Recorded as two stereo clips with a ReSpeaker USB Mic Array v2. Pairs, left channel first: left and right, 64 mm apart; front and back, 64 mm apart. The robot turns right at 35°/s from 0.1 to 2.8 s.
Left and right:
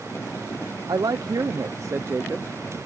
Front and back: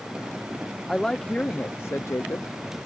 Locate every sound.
0.9 s a woman speaking: 85° right; by 2.5 s 30° right